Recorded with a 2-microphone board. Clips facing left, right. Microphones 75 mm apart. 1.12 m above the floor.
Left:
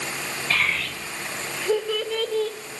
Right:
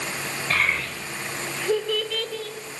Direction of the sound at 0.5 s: 40° right (ahead or behind).